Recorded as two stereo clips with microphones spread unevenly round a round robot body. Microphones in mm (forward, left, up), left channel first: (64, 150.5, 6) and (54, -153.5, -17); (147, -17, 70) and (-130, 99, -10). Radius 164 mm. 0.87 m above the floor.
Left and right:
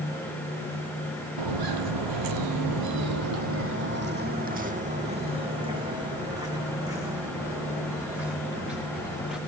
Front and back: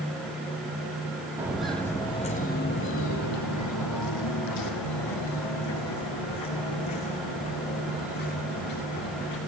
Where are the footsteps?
110° right, 2 m; by 9.4 s 5° right, 7 m.